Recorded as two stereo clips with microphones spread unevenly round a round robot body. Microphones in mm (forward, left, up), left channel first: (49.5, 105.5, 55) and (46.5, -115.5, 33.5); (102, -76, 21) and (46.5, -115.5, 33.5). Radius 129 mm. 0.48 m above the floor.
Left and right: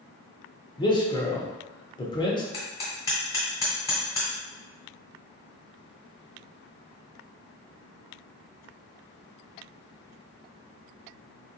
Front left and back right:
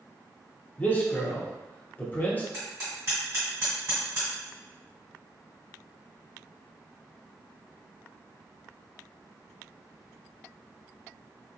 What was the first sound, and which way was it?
A man speaking, 25° left.